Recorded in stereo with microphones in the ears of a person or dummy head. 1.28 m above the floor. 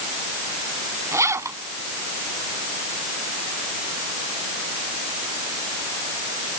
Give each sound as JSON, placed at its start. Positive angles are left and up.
{"t": 1.1, "sound": "a zipper", "side_deg": -15}